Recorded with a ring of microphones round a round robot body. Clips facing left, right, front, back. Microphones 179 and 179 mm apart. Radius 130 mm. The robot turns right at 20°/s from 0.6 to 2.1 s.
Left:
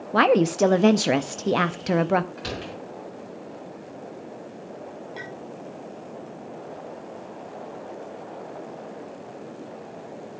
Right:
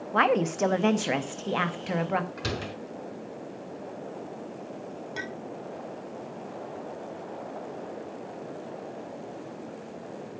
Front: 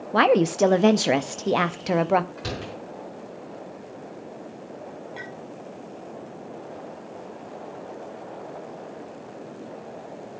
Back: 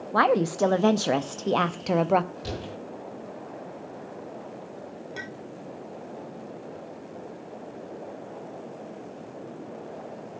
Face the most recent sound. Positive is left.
turn(degrees=-130)